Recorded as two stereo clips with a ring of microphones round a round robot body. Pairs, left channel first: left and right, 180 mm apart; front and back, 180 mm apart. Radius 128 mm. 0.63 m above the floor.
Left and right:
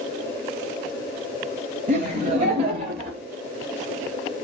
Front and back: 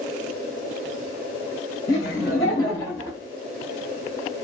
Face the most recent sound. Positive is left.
turn(degrees=-75)